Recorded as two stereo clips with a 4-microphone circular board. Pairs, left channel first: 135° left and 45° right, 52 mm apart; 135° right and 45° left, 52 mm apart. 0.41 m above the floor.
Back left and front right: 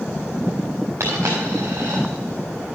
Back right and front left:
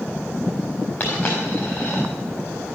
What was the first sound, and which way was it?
A dropped coin, 75° right.